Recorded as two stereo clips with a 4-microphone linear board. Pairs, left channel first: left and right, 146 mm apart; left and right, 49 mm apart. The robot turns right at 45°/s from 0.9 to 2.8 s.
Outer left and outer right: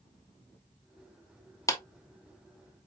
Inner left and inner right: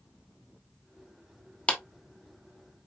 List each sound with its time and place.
1.7 s a clap: 20° left (ahead or behind), 1.0 m